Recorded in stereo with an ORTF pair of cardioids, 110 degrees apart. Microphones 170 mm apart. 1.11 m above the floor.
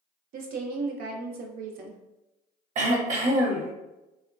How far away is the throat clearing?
About 0.8 m.